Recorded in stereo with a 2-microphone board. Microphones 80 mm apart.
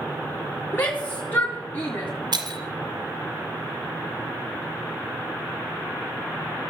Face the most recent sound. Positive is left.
turn(degrees=-65)  # may be behind; listen again after turning